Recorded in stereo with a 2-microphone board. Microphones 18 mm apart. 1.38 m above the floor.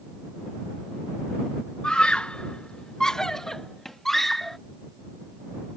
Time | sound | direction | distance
1.8 | a scream | 65° left (ahead or behind) | ?